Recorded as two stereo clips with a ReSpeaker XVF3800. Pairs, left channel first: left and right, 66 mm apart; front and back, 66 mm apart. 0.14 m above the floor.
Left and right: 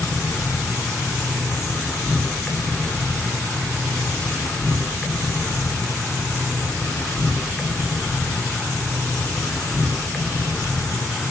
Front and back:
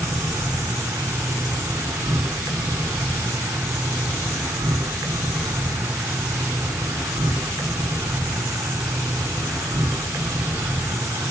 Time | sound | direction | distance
0.0 | an insect | 160° left | 0.8 m